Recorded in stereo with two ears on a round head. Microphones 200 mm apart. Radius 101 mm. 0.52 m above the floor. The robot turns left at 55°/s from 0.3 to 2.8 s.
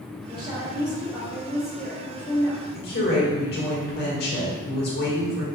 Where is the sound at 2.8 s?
45° left (ahead or behind), 1.4 m.